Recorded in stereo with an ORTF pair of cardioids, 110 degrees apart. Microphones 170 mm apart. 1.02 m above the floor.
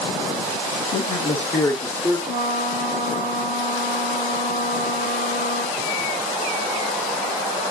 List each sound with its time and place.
0.9 s a man speaking: 60° left, 0.8 m; by 2.2 s 30° left, 1.6 m
2.3 s a trumpet: 65° left, 5 m